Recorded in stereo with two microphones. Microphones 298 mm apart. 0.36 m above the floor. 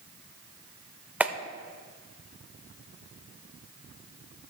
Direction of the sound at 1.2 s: 5° right (ahead or behind).